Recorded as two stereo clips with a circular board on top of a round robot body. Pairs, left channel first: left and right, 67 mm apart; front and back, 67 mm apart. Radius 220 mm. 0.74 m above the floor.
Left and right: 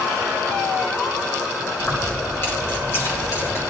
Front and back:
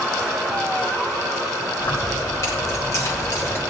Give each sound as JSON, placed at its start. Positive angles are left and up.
{"t": 1.8, "sound": "keys jangling", "azimuth_deg": 25, "distance_m": 2.0}